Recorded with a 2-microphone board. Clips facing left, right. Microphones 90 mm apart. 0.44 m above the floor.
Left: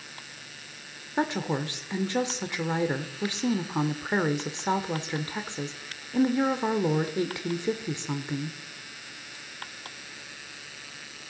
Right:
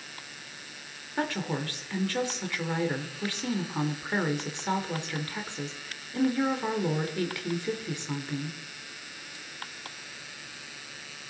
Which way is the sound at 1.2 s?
20° left (ahead or behind).